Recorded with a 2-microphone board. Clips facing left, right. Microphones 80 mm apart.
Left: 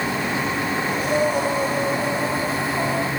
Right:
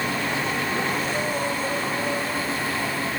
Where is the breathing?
75° left (ahead or behind), 4.5 m.